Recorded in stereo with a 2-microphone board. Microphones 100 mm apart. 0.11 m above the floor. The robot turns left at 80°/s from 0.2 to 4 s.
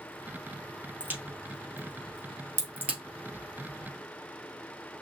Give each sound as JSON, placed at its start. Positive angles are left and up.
{"t": 1.0, "sound": "a crack", "side_deg": -10, "distance_m": 1.8}